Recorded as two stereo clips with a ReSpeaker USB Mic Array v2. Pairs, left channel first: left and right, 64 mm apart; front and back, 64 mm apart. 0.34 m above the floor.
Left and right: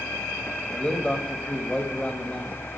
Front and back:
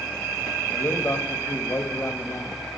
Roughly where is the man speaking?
Ahead.